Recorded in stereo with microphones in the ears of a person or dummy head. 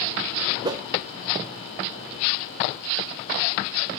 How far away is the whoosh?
About 0.7 m.